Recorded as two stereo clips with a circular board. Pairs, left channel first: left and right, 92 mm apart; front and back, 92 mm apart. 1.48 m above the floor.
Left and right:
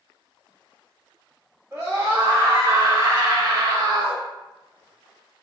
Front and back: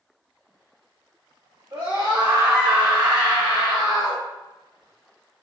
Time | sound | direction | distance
1.7 | a scream | 155° right | 2.5 m